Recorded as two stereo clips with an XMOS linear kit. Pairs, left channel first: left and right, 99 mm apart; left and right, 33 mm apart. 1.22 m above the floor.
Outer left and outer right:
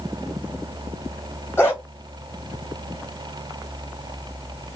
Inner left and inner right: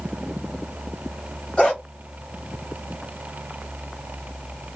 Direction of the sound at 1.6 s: 25° left (ahead or behind).